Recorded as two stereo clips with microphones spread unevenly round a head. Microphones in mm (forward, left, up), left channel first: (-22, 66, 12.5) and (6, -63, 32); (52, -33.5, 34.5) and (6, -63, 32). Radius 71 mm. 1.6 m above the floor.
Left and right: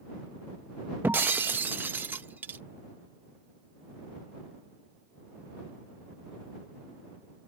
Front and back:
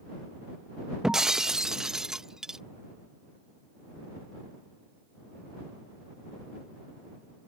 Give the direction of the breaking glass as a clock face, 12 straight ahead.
2 o'clock.